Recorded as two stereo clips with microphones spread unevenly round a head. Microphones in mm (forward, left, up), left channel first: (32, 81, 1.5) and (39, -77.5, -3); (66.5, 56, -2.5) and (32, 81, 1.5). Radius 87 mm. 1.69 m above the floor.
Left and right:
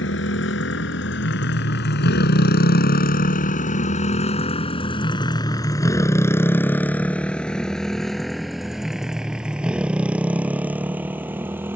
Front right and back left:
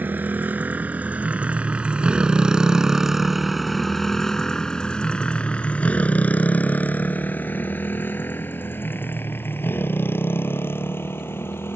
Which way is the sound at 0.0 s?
100° left.